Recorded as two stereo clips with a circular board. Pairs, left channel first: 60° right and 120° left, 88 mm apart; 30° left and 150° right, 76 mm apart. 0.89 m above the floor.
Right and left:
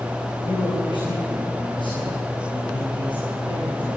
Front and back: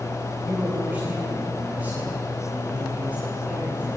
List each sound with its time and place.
0.4 s a man speaking: 80° right, 8.5 m